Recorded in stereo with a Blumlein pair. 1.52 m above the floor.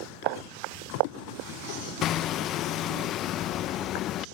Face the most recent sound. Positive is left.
turn(degrees=35)